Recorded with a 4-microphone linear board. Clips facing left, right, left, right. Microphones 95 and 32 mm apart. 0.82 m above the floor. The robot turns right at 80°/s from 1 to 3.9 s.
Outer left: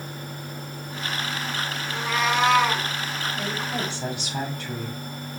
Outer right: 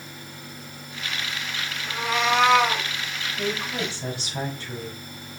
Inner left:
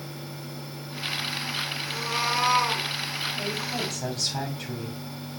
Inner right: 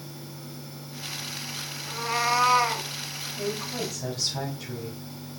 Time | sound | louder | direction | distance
1.9 | a cat meowing | outer right 2 dB, inner right 4 dB | 125° right | 1.9 m
3.4 | a woman speaking | outer right 4 dB, inner left 1 dB | 40° left | 2 m